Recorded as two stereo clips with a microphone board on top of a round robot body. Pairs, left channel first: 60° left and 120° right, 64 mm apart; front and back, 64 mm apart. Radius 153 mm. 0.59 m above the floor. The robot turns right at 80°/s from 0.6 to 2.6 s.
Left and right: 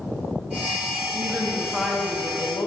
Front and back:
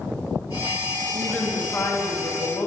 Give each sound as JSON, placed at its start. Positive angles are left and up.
{"t": 1.1, "sound": "a woman speaking", "azimuth_deg": -85, "distance_m": 1.2}